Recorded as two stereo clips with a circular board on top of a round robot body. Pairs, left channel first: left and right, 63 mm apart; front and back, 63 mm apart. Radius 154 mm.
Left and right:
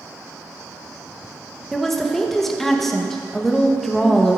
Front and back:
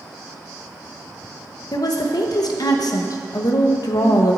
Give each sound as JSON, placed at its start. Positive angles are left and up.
{"t": 1.7, "sound": "a woman speaking", "azimuth_deg": 5, "distance_m": 1.1}